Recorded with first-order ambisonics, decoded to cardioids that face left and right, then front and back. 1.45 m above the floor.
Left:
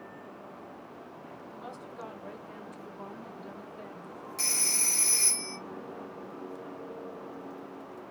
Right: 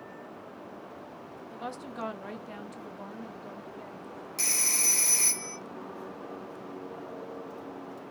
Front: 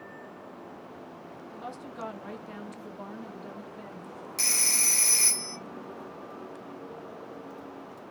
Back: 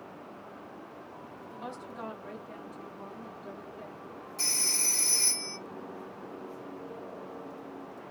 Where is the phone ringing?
20° right, 0.5 m.